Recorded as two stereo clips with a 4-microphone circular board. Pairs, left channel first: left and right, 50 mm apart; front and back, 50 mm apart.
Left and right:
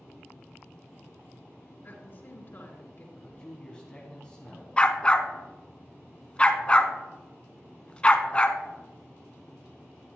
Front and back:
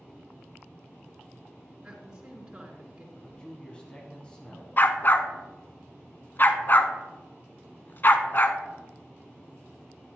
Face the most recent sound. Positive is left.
turn(degrees=25)